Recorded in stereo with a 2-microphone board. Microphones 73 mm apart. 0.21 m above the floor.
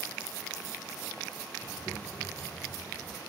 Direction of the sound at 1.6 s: 35° left (ahead or behind).